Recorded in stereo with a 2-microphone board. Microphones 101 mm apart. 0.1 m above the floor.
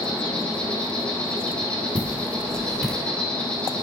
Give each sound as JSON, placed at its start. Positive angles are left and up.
{"t": 0.0, "sound": "an insect", "side_deg": 10, "distance_m": 2.5}
{"t": 1.9, "sound": "footsteps", "side_deg": -15, "distance_m": 3.0}